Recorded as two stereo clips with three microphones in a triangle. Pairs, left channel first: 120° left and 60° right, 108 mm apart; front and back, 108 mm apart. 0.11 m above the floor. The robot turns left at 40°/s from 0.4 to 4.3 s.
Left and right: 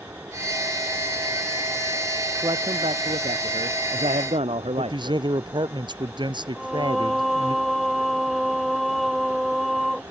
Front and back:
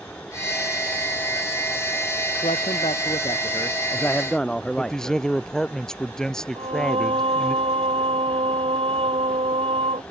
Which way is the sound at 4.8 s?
85° right.